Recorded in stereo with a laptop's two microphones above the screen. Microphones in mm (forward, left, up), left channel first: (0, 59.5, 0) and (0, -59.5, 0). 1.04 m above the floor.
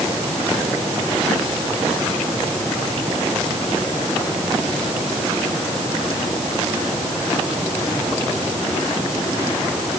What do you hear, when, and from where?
Only background noise.